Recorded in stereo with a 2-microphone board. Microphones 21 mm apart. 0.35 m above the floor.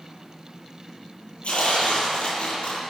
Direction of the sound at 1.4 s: 80° left.